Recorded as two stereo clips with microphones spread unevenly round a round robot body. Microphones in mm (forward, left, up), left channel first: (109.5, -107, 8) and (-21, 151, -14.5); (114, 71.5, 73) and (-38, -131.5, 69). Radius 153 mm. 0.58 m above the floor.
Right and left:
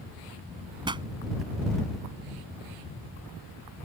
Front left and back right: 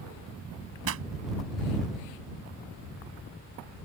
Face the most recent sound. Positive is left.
turn(degrees=-165)